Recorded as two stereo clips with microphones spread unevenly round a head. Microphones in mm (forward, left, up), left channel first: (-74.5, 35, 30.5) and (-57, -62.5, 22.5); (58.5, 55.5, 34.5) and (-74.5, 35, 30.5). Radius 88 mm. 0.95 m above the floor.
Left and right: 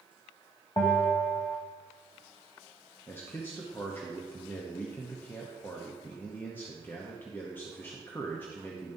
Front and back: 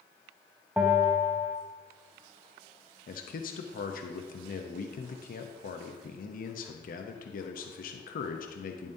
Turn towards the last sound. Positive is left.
turn(degrees=25)